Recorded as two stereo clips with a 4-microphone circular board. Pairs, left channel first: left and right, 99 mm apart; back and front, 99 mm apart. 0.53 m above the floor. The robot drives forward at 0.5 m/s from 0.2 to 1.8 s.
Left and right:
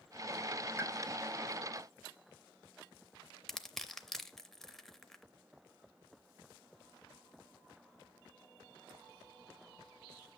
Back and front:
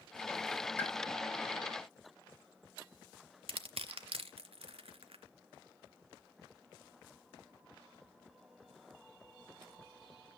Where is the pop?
130° right, 1.5 m.